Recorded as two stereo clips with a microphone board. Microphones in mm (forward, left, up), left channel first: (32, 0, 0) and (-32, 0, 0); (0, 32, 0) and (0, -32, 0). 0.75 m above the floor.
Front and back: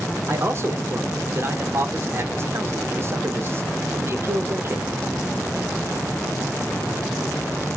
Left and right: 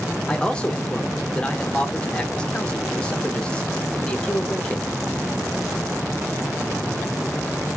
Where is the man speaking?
160° left, 0.7 m.